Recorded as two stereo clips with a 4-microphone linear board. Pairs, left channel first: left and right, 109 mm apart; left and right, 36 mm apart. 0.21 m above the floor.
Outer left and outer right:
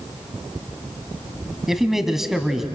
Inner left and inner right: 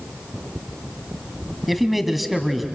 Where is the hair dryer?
I don't hear a hair dryer.